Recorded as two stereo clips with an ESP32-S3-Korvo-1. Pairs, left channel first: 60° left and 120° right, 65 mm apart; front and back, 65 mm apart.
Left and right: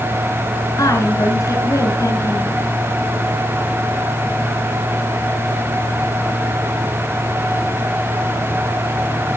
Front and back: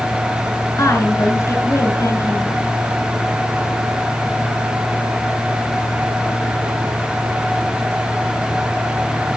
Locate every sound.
0.8 s a woman speaking: 40° left, 4.5 m